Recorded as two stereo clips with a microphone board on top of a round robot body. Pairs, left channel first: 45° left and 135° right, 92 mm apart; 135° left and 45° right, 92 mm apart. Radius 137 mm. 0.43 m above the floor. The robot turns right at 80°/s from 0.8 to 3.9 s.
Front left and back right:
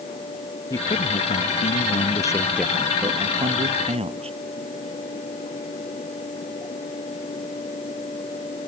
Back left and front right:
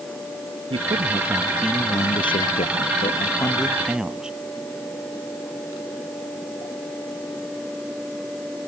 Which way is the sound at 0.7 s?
15° right.